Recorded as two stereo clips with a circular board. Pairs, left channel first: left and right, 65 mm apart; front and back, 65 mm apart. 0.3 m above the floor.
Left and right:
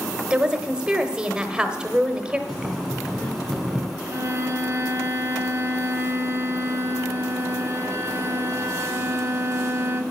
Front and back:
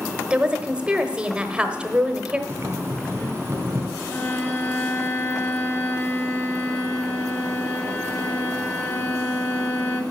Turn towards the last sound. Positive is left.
turn(degrees=-45)